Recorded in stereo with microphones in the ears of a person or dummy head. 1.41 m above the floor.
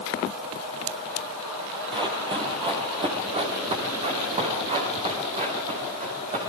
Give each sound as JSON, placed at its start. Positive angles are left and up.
{"t": 1.9, "sound": "running footsteps", "side_deg": -20, "distance_m": 2.0}